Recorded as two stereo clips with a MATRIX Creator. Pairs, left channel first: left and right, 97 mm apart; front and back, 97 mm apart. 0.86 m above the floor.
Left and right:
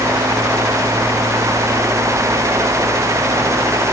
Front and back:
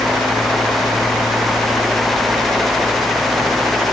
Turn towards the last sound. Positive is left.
No sound to turn to.